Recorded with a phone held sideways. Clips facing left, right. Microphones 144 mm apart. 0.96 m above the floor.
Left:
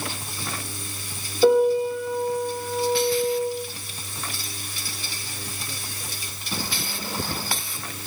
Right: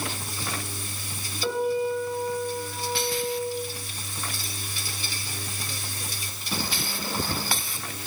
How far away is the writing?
No writing in this recording.